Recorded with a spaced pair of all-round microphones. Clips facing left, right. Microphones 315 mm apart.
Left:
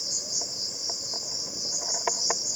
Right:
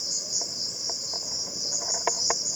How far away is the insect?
About 0.8 m.